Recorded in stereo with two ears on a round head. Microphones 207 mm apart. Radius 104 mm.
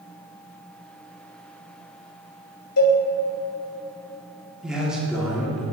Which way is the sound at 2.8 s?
70° left (ahead or behind).